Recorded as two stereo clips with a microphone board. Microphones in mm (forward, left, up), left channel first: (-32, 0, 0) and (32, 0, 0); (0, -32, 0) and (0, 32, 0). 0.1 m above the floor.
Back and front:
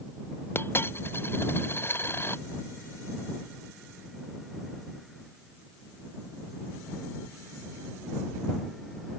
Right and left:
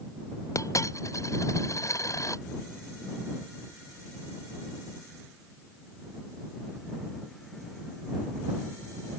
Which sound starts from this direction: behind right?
A dropped coin, at 0.6 s.